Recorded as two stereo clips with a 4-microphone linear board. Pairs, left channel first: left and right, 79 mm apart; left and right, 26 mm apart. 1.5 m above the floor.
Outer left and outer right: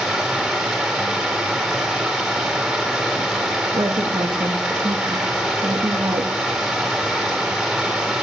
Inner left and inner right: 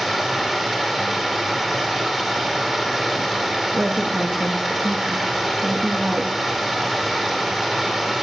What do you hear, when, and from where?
0.0 s running water: 5° right (ahead or behind), 2.5 m
3.7 s a woman speaking: 70° right (ahead or behind), 1.2 m